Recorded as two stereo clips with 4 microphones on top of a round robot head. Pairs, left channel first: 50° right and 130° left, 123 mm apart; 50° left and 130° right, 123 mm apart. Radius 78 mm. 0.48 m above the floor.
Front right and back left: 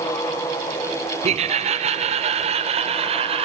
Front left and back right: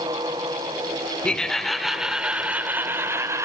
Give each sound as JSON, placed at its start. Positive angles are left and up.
{"t": 1.2, "sound": "laughter", "azimuth_deg": 130, "distance_m": 1.9}